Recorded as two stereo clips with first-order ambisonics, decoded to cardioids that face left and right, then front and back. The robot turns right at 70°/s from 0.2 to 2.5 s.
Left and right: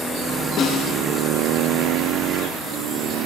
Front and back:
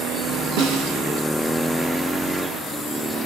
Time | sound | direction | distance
0.6 | a snare drum | 150° left | 7 m